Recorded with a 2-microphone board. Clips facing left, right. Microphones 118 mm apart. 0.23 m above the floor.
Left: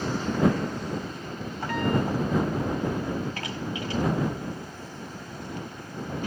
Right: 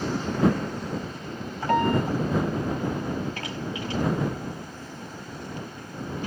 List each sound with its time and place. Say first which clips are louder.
1.7 s a piano: right 4 dB; 50° right (ahead or behind)